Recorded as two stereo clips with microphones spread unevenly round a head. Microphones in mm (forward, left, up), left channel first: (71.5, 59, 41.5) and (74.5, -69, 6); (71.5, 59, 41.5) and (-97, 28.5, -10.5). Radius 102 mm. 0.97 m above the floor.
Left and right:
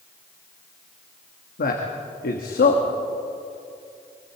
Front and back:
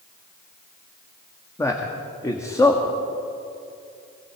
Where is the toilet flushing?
No toilet flushing in this recording.